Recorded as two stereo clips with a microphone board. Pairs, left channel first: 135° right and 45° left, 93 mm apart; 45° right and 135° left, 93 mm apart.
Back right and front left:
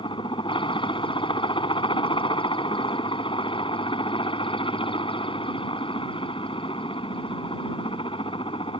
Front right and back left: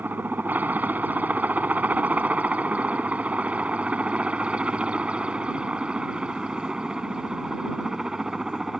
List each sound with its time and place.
0.0 s a helicopter: 155° right; by 8.8 s 140° right